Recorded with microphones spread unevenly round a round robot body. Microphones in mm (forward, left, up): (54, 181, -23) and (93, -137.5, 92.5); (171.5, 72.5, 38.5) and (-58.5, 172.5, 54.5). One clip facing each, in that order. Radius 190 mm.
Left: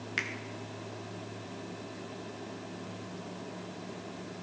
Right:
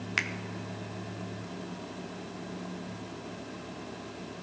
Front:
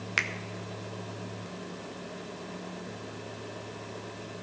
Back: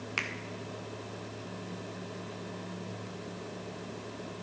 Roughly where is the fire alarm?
I don't hear a fire alarm.